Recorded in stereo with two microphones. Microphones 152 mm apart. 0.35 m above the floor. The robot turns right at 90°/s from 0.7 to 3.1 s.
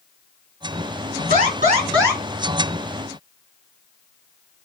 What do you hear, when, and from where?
1.3 s an alarm: 85° right, 4 m; by 2.2 s 5° right, 4 m